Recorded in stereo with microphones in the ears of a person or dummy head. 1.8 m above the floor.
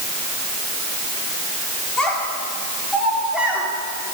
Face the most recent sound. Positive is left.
turn(degrees=-5)  # may be behind; listen again after turning